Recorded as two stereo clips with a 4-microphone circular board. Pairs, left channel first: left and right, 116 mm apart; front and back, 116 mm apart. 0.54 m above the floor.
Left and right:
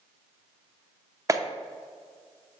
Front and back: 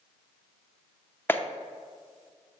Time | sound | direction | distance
1.3 | a clap | 60° right | 0.6 m